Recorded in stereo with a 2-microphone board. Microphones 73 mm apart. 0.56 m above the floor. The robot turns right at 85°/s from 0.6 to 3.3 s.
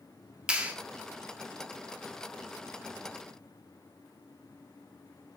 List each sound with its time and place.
0.5 s a clap: 15° right (ahead or behind), 0.9 m; by 0.7 s 20° right (ahead or behind), 0.9 m